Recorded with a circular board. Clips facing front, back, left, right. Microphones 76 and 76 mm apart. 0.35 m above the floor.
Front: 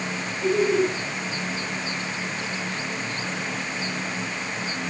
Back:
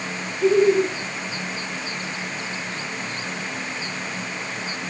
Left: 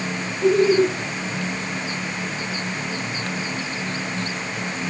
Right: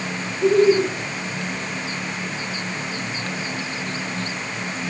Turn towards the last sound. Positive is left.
turn(degrees=-145)